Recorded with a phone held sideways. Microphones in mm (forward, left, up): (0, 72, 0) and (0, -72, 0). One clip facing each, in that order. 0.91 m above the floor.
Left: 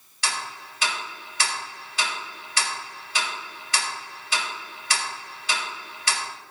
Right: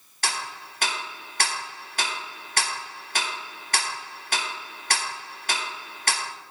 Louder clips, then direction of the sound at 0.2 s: Even; 55° right (ahead or behind).